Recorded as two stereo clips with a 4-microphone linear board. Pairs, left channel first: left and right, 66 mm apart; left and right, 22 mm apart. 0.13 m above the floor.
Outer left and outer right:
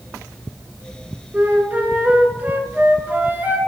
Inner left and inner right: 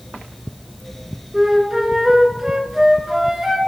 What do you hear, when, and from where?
1.3 s a flute: 25° right (ahead or behind), 0.7 m